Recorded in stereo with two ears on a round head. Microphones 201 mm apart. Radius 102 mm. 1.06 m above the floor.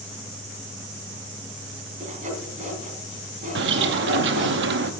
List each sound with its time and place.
2.0 s sawing: 35° right (ahead or behind), 3 m
3.5 s a bird: 55° right (ahead or behind), 0.9 m